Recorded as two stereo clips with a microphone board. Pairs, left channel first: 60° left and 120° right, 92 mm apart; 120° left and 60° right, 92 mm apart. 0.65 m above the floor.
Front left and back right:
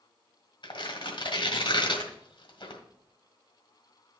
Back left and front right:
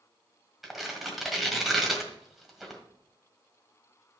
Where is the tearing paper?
25° left, 1.6 m.